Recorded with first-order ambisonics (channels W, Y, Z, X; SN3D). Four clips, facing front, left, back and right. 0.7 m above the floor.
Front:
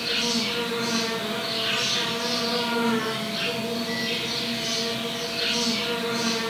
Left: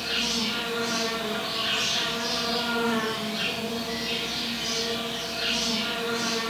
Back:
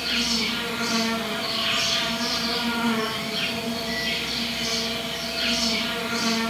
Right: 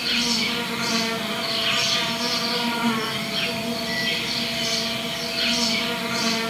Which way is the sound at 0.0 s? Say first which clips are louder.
Right 4 dB, back 1 dB; 115° right.